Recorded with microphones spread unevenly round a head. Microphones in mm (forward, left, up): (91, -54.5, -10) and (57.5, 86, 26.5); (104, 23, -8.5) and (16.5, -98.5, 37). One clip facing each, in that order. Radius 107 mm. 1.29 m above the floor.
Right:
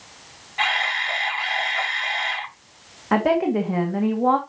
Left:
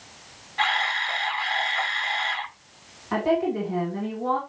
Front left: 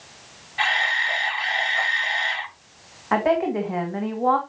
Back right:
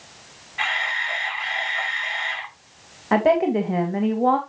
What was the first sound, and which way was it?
A camera shutter, straight ahead.